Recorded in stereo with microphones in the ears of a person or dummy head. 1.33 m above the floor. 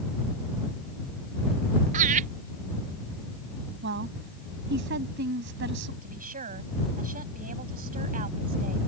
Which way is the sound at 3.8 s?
65° right (ahead or behind).